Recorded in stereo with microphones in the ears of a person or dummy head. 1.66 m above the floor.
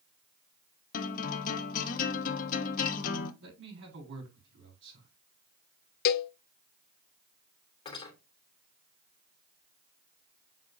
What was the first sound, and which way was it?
A guitar, 50° left (ahead or behind).